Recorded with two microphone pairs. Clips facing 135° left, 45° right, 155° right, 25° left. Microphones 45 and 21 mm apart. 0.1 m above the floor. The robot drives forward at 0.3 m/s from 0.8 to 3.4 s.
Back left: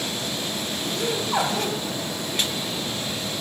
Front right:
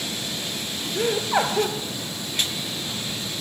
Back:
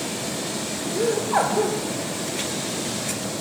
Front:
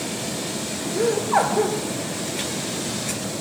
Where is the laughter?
40° right, 1.6 m; by 1.8 s 50° right, 1.5 m.